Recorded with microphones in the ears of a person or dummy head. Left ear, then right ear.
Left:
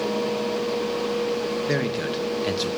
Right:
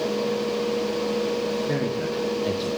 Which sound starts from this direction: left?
A man speaking, at 1.7 s.